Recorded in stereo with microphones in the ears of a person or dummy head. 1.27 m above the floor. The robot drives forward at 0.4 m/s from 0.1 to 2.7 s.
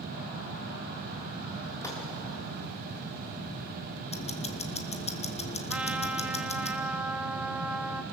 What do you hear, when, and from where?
1.8 s a gunshot: 10° left (ahead or behind), 3 m
4.1 s ticking: 25° left (ahead or behind), 1.0 m
5.7 s a trumpet: 15° right (ahead or behind), 0.7 m